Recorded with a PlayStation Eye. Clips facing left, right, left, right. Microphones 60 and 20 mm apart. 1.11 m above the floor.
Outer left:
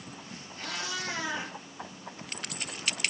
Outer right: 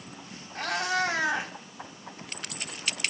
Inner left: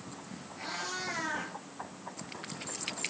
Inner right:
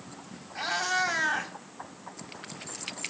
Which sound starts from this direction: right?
A cat meowing, at 0.6 s.